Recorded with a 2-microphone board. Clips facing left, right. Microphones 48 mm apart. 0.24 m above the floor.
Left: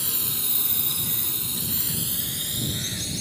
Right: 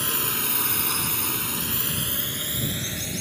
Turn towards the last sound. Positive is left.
turn(degrees=-30)  # may be behind; listen again after turning